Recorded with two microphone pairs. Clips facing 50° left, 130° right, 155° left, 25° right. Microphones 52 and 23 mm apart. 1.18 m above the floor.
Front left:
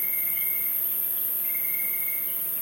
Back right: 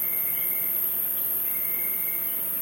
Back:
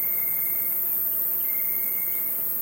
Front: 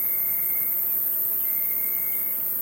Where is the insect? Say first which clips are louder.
Front left 2 dB, back 1 dB; 75° left, 1.4 m.